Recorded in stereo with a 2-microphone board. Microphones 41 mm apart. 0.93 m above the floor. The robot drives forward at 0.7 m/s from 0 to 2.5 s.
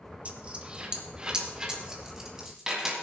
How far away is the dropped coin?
About 1.2 m.